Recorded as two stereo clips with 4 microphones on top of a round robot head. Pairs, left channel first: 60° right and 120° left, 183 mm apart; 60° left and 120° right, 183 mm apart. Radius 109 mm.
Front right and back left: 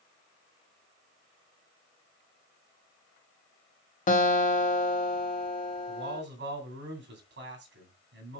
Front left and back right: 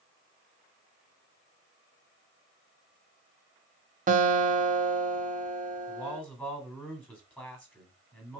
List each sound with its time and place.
4.1 s a guitar: 90° right, 1.5 m
5.9 s a man speaking: 140° left, 3.5 m